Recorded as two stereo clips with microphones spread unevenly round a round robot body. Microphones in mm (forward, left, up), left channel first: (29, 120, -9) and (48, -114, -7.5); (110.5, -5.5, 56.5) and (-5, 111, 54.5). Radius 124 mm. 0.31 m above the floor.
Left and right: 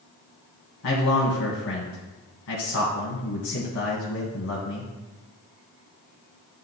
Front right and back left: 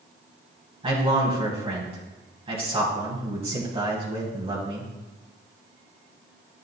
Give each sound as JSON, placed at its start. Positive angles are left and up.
{"t": 0.8, "sound": "a man speaking", "azimuth_deg": 85, "distance_m": 2.5}